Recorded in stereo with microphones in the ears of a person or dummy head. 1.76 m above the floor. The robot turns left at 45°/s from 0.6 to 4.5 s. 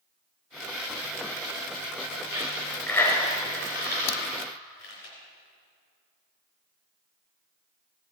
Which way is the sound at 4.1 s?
75° left (ahead or behind).